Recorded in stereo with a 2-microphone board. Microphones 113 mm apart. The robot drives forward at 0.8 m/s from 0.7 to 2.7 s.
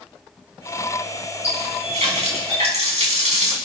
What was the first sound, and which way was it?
A running tap, 70° right (ahead or behind).